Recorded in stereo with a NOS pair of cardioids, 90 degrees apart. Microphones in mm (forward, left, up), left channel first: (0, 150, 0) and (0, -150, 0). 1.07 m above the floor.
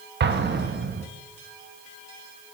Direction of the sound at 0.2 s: 35° right.